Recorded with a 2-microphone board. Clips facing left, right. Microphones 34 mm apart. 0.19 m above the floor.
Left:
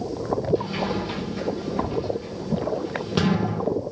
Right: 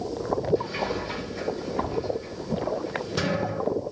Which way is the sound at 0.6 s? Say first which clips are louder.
Left 2 dB; 40° left (ahead or behind).